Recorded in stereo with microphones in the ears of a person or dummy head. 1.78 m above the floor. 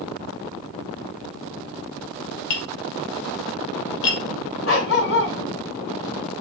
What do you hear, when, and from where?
2.5 s tapping: 65° left (ahead or behind), 2.5 m
4.7 s a dog barking: 65° left (ahead or behind), 4 m